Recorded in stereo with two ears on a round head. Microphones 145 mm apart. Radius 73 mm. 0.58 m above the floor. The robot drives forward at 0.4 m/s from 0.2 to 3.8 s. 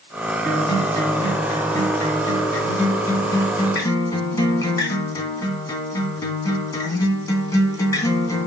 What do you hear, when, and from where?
0.5 s a guitar: 15° left (ahead or behind), 4 m; by 8.5 s 20° left (ahead or behind), 3 m